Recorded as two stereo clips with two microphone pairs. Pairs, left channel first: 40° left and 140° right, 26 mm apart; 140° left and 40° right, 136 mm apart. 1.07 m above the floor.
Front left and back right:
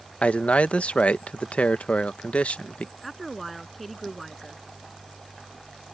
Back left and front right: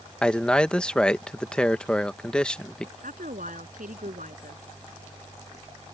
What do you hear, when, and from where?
0.2 s a man speaking: 60° left
3.0 s a woman speaking: 45° right